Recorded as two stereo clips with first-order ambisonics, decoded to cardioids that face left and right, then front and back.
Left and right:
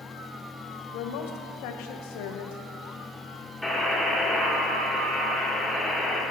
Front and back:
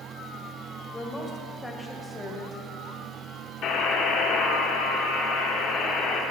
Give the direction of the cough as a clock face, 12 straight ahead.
I don't hear a cough.